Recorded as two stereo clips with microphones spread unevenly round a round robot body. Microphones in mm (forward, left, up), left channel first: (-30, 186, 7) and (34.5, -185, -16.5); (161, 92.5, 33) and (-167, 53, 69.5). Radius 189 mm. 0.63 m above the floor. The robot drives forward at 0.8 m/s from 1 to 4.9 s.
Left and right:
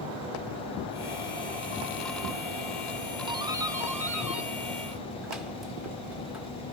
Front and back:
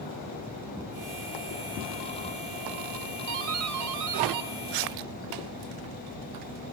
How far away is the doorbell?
About 1.3 m.